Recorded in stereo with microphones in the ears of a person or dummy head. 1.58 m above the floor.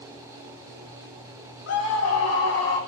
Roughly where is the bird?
I don't hear a bird.